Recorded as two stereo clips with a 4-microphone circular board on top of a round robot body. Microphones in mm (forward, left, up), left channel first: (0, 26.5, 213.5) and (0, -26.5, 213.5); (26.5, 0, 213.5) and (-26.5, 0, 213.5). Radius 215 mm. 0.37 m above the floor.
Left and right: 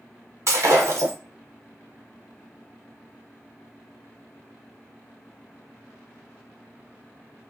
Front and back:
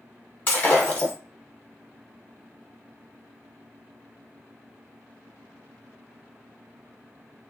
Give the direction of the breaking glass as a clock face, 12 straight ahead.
2 o'clock.